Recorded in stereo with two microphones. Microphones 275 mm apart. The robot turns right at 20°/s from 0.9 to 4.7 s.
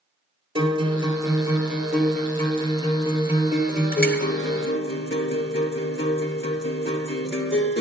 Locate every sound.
0.6 s a guitar: 25° right, 1.9 m; by 7.8 s 55° left, 1.9 m